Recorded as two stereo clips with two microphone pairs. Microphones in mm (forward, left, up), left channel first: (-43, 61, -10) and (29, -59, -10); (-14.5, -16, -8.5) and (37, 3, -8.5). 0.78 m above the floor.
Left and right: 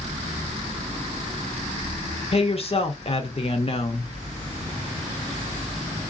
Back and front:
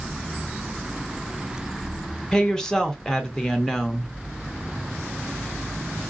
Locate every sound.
2.3 s a woman speaking: 125° left, 0.7 m